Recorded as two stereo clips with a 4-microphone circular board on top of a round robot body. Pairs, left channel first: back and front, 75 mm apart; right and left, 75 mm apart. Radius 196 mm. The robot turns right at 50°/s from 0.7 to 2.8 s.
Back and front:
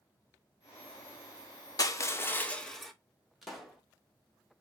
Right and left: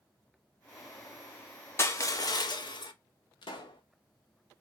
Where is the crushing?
145° right, 0.7 m; by 2.9 s 95° right, 0.7 m.